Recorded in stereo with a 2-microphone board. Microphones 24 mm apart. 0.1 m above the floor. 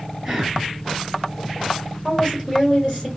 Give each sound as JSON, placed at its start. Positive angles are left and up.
{"t": 0.2, "sound": "whispering", "side_deg": -15, "distance_m": 1.1}
{"t": 2.0, "sound": "a woman speaking", "side_deg": 15, "distance_m": 1.8}